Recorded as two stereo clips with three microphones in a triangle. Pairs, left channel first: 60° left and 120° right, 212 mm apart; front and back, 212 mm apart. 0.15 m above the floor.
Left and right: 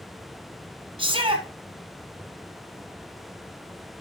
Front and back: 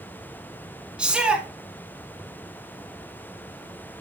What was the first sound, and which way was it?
A shout, 100° right.